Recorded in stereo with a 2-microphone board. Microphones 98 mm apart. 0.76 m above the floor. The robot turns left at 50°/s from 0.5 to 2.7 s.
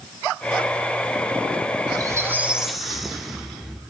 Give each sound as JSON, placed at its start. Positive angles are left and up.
{"t": 1.9, "sound": "a squeak", "azimuth_deg": -140, "distance_m": 0.6}